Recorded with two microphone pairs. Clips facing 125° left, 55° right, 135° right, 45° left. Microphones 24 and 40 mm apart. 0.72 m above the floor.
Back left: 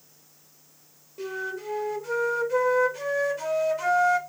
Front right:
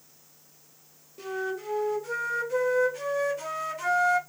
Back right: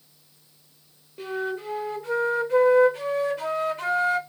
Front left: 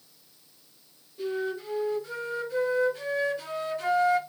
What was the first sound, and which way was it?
A flute, 155° right.